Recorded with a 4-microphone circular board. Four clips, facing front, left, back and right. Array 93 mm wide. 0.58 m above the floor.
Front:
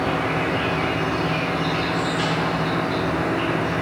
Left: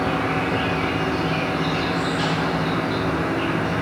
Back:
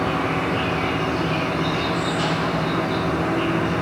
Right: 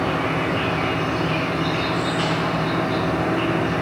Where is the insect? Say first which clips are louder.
Even, even; 110° right, 1.8 m.